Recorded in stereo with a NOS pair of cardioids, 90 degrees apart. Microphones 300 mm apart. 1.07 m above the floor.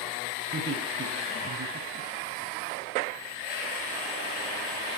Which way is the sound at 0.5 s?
40° right.